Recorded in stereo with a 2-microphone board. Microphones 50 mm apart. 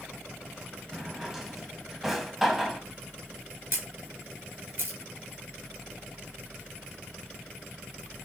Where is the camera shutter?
40° right (ahead or behind), 5.5 m.